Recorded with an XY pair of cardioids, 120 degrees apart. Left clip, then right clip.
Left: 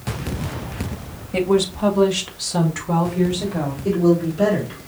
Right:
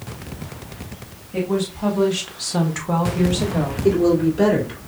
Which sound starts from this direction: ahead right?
A woman speaking, at 3.8 s.